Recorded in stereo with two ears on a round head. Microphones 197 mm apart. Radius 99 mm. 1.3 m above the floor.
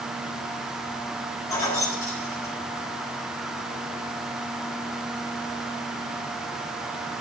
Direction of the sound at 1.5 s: 15° left (ahead or behind).